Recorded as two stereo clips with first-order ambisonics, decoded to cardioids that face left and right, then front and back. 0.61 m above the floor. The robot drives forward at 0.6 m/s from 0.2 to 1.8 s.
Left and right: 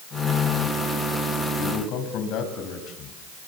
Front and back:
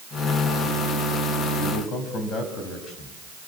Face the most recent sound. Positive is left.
turn(degrees=55)